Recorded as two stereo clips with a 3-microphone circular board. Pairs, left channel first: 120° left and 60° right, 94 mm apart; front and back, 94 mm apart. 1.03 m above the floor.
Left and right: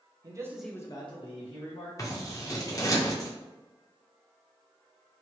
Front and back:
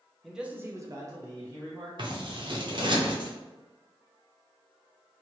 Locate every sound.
0.2 s a man speaking: 95° right, 0.7 m; by 2.0 s 115° left, 1.6 m
2.0 s scissors: 165° left, 0.6 m